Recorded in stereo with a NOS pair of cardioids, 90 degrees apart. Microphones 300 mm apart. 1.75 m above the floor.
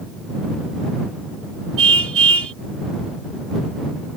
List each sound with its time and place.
1.8 s a car horn: 50° right